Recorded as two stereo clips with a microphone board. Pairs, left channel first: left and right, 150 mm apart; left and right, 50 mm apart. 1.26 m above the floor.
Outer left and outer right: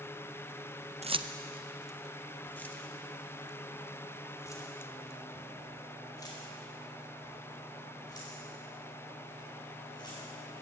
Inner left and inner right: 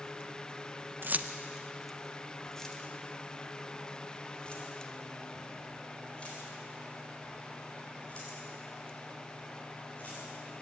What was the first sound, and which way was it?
Keys jangling, 45° right (ahead or behind).